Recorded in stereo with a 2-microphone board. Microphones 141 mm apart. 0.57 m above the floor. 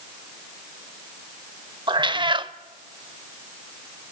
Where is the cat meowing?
35° right (ahead or behind), 0.6 m.